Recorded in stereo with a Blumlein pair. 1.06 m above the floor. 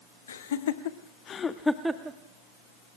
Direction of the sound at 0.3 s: 70° left.